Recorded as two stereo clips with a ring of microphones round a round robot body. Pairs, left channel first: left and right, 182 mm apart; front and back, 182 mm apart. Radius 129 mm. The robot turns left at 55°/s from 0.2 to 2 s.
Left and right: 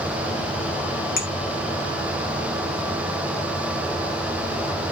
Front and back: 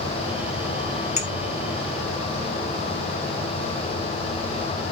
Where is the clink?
50° left, 2.5 m; by 1.3 s 45° left, 2.5 m.